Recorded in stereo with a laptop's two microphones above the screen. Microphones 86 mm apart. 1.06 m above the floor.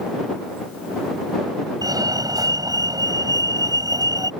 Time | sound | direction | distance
1.8 | a fire alarm | 45° right (ahead or behind) | ?